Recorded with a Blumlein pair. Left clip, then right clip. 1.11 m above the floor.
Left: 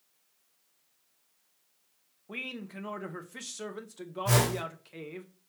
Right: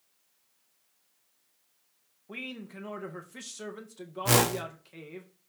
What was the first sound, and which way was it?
A man speaking, 5° left.